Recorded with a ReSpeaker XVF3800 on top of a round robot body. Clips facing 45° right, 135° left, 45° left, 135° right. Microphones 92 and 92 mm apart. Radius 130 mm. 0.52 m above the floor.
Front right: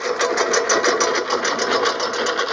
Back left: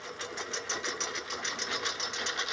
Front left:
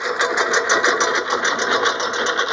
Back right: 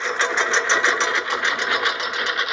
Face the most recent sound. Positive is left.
turn(degrees=-15)